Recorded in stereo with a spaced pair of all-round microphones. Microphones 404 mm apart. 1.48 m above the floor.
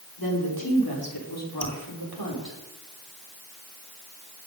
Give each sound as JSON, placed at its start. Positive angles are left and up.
{"t": 0.2, "sound": "a woman speaking", "side_deg": 60, "distance_m": 5.5}
{"t": 1.6, "sound": "dripping", "side_deg": -15, "distance_m": 3.5}